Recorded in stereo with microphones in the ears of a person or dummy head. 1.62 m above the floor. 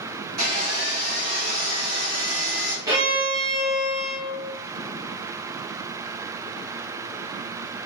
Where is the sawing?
45° right (ahead or behind), 1.8 m.